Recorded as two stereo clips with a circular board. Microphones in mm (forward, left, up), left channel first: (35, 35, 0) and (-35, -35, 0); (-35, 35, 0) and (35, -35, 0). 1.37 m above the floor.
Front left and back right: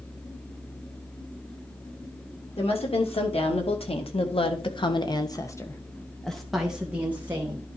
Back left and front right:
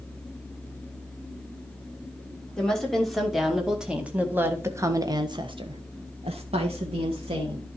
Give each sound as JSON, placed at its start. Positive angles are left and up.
{"t": 2.6, "sound": "a woman speaking", "azimuth_deg": 50, "distance_m": 3.0}